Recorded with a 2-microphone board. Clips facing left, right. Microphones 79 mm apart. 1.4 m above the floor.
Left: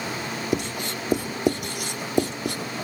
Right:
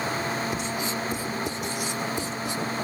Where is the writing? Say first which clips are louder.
Left 2 dB; 70° left (ahead or behind).